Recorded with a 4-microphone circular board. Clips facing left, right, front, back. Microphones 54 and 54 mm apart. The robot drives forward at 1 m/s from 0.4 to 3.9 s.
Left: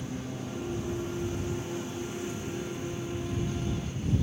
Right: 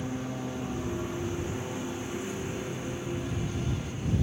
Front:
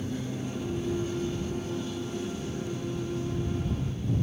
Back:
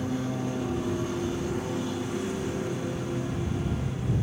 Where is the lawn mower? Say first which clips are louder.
Right 3 dB, back 4 dB; 155° right; by 4.2 s 160° right.